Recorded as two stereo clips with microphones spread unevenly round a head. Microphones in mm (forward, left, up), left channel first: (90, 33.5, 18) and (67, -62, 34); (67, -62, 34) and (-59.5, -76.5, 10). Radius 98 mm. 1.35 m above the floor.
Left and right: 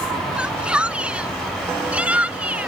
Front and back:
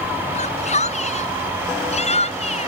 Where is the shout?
25° right.